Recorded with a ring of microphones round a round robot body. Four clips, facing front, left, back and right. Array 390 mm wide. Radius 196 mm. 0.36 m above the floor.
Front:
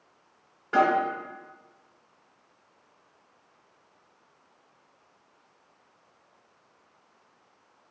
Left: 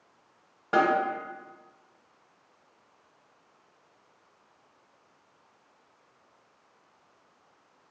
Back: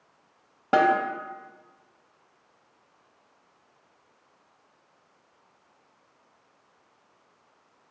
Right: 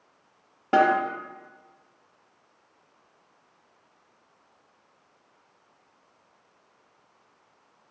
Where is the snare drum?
155° right, 0.9 m.